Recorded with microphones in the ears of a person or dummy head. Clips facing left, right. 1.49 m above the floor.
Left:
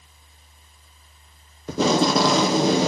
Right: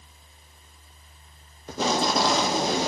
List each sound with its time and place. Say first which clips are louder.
1.7 s tape being pulled: left 6 dB; 60° left (ahead or behind), 0.7 m